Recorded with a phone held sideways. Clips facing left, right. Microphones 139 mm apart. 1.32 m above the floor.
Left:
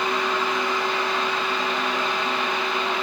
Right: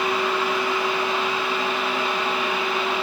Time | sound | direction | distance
0.0 | a fan | 10° right (ahead or behind) | 4 m